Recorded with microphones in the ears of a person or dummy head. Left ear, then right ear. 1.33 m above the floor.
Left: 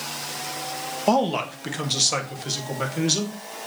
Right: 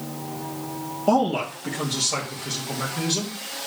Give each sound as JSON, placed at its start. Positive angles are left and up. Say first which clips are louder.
{"t": 1.1, "sound": "a man speaking", "louder": "even", "side_deg": 25, "distance_m": 1.6}